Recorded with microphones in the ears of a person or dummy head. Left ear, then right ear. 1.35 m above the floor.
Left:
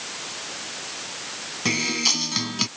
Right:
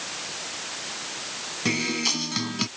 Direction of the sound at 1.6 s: 15° left (ahead or behind).